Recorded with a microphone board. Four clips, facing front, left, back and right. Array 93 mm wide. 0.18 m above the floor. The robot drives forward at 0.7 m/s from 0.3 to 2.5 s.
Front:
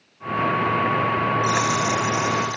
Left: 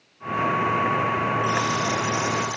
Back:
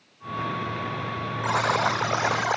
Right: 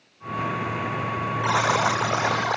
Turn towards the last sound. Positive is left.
turn(degrees=-140)